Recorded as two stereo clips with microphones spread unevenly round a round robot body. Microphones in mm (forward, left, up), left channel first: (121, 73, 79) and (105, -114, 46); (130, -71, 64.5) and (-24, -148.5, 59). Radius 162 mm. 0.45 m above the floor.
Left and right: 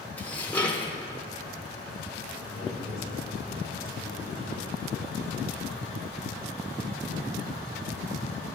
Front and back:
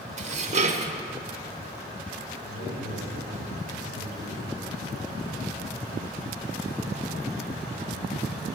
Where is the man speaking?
130° right, 5 m.